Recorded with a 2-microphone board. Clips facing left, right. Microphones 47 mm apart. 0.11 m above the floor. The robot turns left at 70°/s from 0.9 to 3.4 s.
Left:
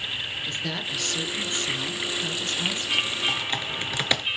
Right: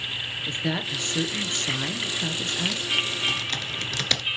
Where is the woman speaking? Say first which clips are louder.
Right 5 dB; 30° right, 1.5 m; by 3.0 s straight behind, 1.5 m.